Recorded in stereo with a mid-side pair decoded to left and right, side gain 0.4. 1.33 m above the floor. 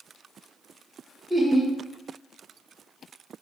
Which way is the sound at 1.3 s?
15° right.